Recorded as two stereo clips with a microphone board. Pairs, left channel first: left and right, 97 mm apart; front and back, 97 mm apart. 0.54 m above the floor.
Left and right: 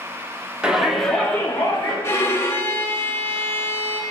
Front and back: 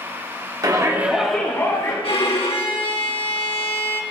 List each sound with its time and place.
0.6 s a shout: 165° right, 1.0 m; by 1.9 s 35° left, 1.1 m
2.0 s a violin: 25° left, 0.8 m